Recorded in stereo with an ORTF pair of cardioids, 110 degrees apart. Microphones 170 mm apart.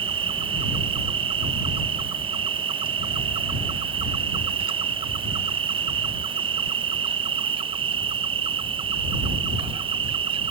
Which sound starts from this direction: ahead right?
An insect, at 0.0 s.